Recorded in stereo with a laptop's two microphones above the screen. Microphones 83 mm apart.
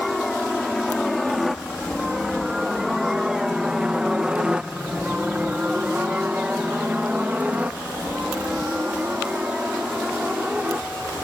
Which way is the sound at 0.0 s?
Centre (ahead or behind).